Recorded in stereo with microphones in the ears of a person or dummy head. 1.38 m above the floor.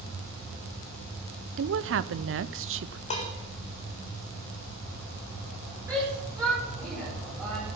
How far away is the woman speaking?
About 0.7 m.